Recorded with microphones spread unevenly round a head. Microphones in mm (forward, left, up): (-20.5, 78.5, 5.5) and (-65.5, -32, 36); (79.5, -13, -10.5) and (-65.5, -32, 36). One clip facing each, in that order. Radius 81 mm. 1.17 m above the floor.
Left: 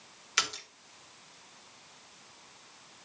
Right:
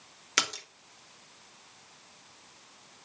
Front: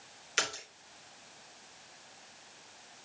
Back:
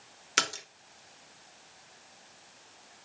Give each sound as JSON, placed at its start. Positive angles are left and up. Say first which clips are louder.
{"t": 0.4, "sound": "a splash", "louder": "right 2 dB, back 2 dB", "azimuth_deg": -150, "distance_m": 1.9}